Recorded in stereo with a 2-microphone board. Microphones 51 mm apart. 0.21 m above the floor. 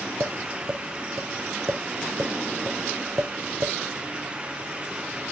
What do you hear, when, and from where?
0.2 s tapping: 90° right, 2.5 m